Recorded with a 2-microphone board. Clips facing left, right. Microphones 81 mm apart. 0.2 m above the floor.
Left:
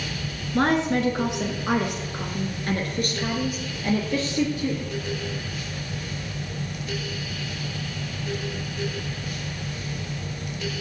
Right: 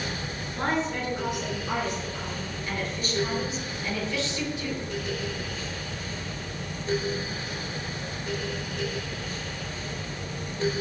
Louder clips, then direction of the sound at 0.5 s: Left 7 dB; 65° left (ahead or behind).